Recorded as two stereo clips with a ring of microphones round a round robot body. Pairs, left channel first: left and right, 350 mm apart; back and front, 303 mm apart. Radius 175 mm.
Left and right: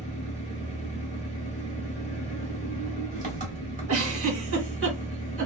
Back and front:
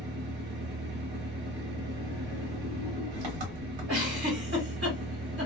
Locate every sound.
0.0 s an engine running: 20° right, 1.0 m
3.9 s a giggle: 50° right, 1.6 m